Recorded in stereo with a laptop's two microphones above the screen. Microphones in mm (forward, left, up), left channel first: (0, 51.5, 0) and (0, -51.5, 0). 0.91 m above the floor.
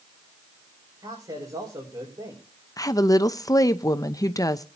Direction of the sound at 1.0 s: 45° right (ahead or behind).